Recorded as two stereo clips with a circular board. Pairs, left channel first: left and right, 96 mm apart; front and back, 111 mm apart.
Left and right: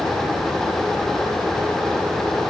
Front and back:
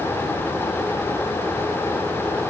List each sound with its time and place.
Only background noise.